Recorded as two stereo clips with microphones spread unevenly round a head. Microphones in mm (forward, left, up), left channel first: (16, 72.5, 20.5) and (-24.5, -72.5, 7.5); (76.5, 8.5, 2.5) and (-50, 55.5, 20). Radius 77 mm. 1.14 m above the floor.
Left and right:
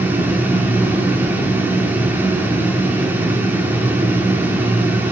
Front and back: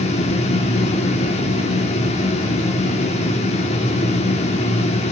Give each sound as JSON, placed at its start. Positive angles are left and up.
{"t": 0.0, "sound": "a fan", "azimuth_deg": -25, "distance_m": 0.8}